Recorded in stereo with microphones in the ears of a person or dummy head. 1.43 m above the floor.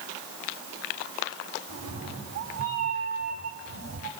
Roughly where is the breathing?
No breathing in this recording.